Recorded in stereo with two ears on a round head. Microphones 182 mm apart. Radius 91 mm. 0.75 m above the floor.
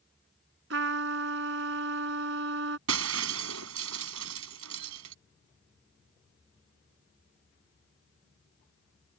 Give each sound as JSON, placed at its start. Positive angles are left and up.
{"t": 0.7, "sound": "a trumpet", "side_deg": -65}
{"t": 2.9, "sound": "breaking glass", "side_deg": -85}